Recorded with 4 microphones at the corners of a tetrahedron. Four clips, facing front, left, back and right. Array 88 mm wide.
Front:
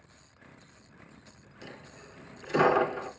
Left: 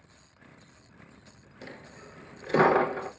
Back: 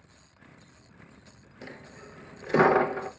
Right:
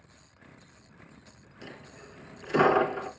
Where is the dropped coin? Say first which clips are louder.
Left 1 dB, back 3 dB; 145° left, 0.6 m.